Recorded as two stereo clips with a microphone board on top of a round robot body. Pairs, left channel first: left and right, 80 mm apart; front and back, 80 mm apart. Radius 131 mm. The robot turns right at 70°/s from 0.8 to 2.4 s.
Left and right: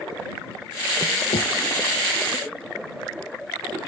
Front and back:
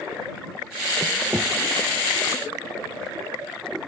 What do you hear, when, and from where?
1.3 s knocking: 105° left; by 1.5 s 120° left